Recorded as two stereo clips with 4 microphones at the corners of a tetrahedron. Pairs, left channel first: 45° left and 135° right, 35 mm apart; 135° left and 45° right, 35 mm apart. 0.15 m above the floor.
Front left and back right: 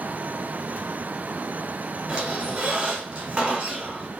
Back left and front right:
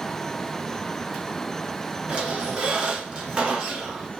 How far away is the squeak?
About 1.3 m.